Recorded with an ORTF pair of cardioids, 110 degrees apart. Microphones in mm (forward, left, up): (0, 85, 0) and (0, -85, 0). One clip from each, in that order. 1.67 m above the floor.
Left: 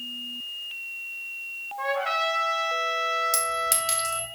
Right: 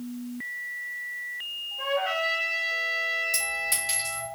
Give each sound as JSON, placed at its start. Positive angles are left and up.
{"t": 1.8, "sound": "a trumpet", "azimuth_deg": 50, "distance_m": 1.0}
{"t": 3.3, "sound": "a clink", "azimuth_deg": 50, "distance_m": 1.8}